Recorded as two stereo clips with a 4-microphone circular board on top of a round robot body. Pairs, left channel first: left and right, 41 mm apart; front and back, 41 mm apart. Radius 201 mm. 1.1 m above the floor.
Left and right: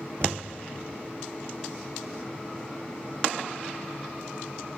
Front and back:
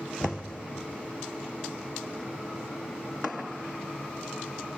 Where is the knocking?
85° right, 0.5 m.